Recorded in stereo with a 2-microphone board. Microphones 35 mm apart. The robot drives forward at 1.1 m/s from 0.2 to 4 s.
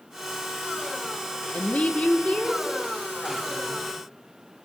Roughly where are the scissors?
I don't hear scissors.